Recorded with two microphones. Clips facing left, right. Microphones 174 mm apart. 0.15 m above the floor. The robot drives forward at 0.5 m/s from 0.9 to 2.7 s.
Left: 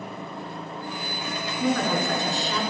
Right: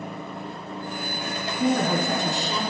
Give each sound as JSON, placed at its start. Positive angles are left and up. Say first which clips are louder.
{"t": 1.6, "sound": "a woman speaking", "louder": "right 2 dB", "side_deg": -20, "distance_m": 1.3}